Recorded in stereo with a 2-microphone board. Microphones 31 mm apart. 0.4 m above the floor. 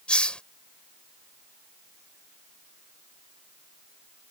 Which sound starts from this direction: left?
A hiss, at 0.1 s.